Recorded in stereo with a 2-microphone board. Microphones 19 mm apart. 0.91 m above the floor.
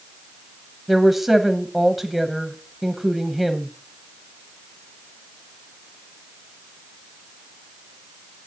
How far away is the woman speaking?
About 1.0 m.